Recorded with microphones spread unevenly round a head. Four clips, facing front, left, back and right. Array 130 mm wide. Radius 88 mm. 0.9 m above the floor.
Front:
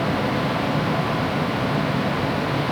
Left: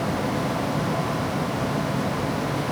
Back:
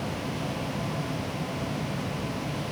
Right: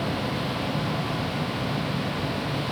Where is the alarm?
I don't hear an alarm.